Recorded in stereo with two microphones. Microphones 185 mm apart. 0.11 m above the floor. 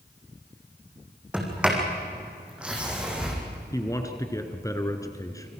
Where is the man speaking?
15° left (ahead or behind), 1.7 m.